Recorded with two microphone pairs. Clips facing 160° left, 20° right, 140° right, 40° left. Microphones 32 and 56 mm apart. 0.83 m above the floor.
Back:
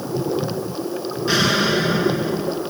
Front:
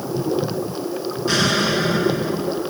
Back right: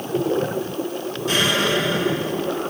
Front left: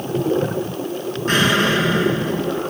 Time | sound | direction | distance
1.3 | an explosion | 80° left | 2.5 m